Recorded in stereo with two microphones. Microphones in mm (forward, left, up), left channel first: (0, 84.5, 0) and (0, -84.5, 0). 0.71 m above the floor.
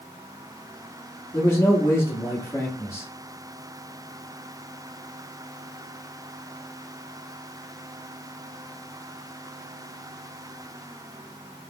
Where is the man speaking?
20° left (ahead or behind), 1.3 m.